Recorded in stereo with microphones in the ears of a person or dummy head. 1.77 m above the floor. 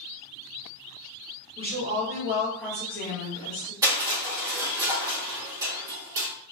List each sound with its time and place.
1.6 s a woman speaking: 30° right (ahead or behind), 1.1 m; by 3.7 s 30° left (ahead or behind), 1.2 m
3.8 s crushing: 15° right (ahead or behind), 1.1 m